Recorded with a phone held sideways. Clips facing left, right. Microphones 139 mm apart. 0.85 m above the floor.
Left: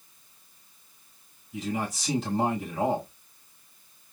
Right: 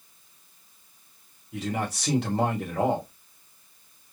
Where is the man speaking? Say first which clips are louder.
Right 1 dB; 70° right (ahead or behind), 3 m.